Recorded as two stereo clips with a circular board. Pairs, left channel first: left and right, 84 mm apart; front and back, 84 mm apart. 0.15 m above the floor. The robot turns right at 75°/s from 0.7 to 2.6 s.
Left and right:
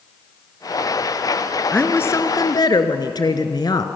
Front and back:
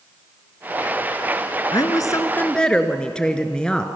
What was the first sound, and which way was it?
A woman speaking, 10° left.